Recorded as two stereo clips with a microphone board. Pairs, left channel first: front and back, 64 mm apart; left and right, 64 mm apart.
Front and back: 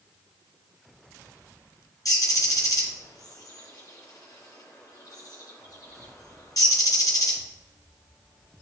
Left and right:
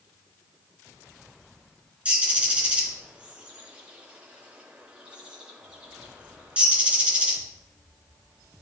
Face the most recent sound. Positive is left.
turn(degrees=-20)